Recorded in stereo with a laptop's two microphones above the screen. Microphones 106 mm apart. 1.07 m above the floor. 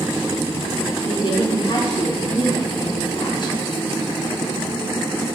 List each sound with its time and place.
1.1 s a woman speaking: 45° left (ahead or behind), 0.8 m